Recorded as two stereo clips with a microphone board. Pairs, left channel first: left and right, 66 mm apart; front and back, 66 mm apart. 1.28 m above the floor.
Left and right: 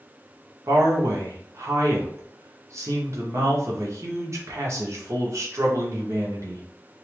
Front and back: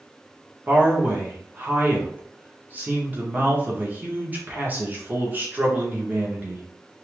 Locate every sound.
0.7 s a man speaking: 120° right, 0.8 m